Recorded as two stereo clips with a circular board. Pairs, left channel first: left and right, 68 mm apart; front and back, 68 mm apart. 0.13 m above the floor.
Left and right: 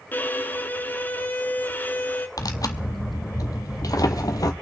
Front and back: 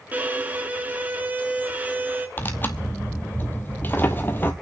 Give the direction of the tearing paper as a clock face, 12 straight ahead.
10 o'clock.